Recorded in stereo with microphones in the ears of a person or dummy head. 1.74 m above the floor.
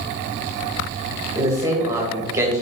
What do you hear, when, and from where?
1.4 s a man speaking: 20° right (ahead or behind), 1.2 m